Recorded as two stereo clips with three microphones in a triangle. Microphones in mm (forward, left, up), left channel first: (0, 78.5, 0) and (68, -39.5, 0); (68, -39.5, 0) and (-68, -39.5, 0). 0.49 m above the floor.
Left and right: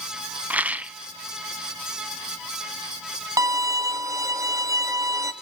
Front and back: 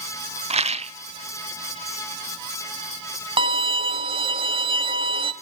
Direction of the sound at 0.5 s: 140° right.